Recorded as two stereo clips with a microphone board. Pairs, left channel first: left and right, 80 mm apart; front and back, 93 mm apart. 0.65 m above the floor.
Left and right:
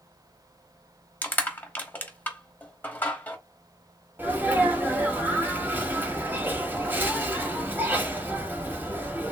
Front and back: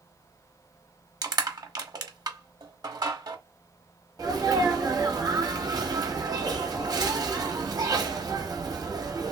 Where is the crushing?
155° left, 0.9 m.